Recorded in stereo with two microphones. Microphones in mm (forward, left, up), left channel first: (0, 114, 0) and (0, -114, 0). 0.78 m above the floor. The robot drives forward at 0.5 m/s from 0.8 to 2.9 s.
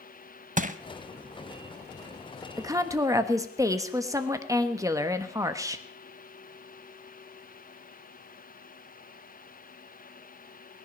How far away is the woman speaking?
About 1.1 m.